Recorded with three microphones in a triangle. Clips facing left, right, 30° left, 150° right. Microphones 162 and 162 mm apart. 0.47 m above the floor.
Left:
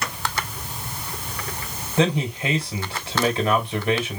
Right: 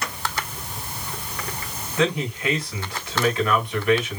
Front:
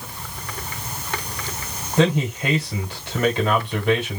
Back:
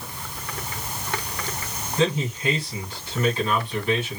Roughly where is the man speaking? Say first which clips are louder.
Left 2 dB, front 4 dB; ahead left.